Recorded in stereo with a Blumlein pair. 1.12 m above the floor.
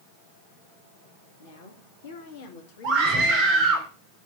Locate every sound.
1.4 s a woman speaking: 65° left, 2.5 m; by 3.8 s 35° left, 2.5 m
2.8 s a scream: 40° right, 3.5 m